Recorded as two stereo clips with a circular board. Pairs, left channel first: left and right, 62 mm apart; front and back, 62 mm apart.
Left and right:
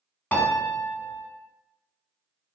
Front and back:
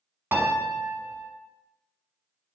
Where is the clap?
I don't hear a clap.